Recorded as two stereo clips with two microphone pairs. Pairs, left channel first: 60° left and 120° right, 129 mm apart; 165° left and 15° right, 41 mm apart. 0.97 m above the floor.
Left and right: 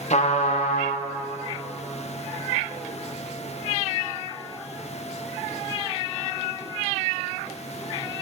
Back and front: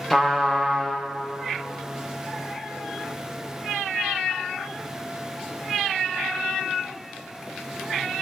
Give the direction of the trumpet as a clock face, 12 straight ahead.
9 o'clock.